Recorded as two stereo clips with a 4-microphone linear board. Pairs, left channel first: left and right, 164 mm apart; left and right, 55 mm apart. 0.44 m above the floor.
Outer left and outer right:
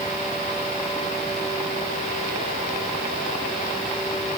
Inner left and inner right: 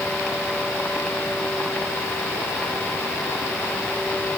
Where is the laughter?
I don't hear laughter.